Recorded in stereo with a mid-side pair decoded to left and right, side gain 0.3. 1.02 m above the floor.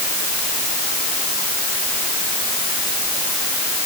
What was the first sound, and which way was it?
Only background noise.